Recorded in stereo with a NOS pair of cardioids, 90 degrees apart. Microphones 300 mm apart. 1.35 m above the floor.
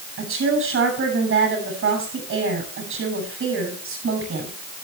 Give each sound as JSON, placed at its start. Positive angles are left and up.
{"t": 0.2, "sound": "a woman speaking", "azimuth_deg": -45, "distance_m": 8.5}